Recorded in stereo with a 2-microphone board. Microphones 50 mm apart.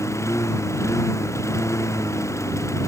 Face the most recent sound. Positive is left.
turn(degrees=90)